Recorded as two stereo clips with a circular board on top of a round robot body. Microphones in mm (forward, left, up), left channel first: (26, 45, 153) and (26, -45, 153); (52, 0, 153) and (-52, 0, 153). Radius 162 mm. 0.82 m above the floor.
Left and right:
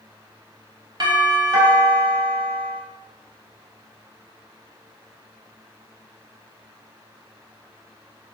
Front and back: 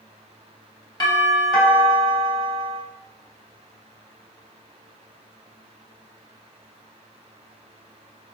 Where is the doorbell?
50° right, 3.5 m.